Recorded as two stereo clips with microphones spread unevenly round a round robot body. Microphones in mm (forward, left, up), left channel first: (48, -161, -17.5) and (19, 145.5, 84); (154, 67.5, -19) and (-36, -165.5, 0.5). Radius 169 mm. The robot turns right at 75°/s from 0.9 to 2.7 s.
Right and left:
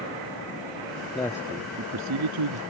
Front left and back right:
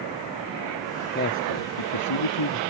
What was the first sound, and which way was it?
A man speaking, 10° right.